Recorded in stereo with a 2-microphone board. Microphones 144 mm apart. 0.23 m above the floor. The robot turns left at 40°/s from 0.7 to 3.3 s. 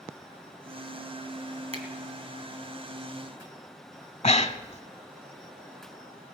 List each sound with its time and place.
1.7 s a finger snap: 45° right (ahead or behind), 2 m; by 1.9 s 50° right (ahead or behind), 2 m
4.2 s breathing: 50° left (ahead or behind), 0.8 m